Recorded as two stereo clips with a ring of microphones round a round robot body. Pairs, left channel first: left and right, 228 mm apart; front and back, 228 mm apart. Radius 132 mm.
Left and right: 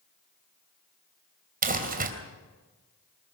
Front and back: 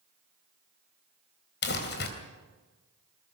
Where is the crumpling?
45° right, 3 m.